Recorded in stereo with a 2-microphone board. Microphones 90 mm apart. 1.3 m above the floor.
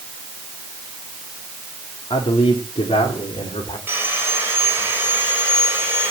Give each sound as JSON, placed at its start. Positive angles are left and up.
{"t": 2.1, "sound": "a man speaking", "side_deg": 60, "distance_m": 2.5}
{"t": 3.9, "sound": "sawing", "side_deg": -25, "distance_m": 4.0}